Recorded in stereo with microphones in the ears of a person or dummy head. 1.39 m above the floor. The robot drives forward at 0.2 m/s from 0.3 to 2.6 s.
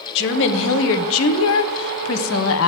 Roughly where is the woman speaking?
Left.